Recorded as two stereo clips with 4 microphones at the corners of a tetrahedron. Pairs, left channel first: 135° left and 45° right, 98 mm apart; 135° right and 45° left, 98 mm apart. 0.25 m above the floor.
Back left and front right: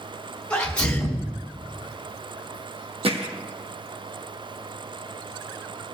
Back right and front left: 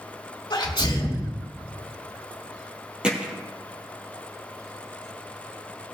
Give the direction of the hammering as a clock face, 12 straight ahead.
1 o'clock.